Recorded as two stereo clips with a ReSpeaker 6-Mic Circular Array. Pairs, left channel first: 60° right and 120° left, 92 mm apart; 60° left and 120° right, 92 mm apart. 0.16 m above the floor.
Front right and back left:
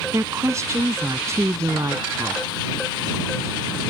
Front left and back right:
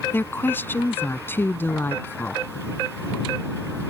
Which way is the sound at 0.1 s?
105° left.